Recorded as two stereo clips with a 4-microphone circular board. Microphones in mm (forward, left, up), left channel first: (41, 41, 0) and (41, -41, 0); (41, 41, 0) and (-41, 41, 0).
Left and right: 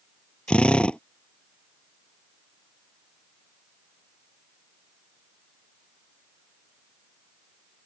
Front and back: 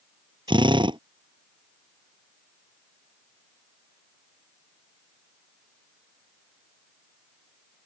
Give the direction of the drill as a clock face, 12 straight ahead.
6 o'clock.